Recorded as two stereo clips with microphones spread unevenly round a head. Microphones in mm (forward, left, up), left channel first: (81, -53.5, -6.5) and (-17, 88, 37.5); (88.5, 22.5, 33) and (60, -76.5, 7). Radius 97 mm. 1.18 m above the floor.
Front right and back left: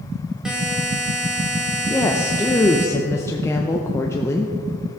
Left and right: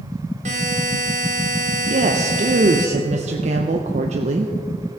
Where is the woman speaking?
130° right, 0.6 m.